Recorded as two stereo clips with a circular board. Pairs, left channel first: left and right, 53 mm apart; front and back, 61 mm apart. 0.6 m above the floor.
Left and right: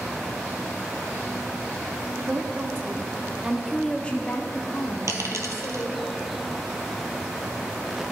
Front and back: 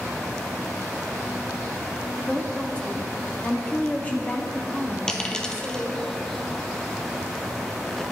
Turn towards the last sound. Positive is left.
turn(degrees=-75)